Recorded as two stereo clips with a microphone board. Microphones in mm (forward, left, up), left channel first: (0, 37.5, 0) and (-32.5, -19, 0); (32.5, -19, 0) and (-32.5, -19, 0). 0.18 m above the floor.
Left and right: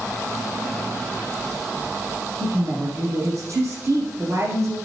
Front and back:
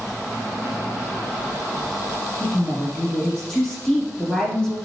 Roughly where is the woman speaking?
Right.